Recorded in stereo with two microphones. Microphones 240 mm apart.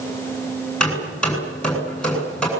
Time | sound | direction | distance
0.8 | hammering | 5° left (ahead or behind) | 9 m